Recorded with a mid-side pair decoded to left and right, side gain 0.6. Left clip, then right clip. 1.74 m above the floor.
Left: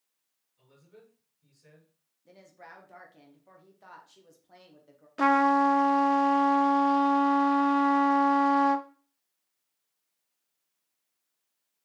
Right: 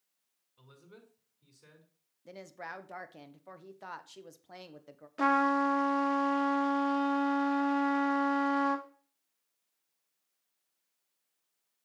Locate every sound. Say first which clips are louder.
0.6 s a man speaking: even; 60° right, 5 m
2.2 s a woman speaking: right 6 dB; 45° right, 1.2 m
5.2 s a trumpet: left 5 dB; 20° left, 1.0 m